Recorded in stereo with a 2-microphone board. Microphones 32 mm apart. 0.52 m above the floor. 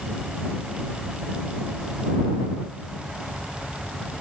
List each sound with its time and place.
Only background noise.